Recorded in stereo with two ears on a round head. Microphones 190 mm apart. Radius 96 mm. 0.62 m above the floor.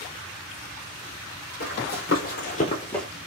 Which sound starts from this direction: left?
Running footsteps, at 1.6 s.